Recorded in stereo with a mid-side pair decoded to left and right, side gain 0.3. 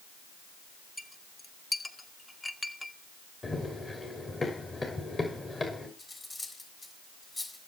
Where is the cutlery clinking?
40° left, 5.5 m.